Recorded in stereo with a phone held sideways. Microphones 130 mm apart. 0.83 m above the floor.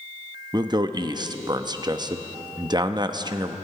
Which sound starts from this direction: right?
A man speaking, at 0.5 s.